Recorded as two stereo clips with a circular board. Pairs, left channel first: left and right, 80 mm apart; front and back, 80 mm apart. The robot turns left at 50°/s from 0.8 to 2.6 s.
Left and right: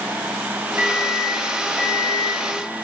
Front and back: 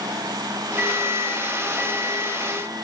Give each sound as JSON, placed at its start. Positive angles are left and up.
{"t": 0.8, "sound": "a microwave", "azimuth_deg": -135, "distance_m": 0.9}